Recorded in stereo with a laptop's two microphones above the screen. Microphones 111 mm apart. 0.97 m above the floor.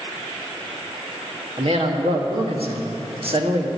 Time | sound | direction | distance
1.6 | a man speaking | 60° right (ahead or behind) | 1.4 m